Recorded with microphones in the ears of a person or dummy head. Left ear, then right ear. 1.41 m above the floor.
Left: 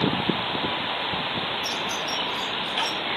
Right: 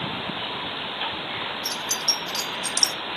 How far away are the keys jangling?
About 1.0 m.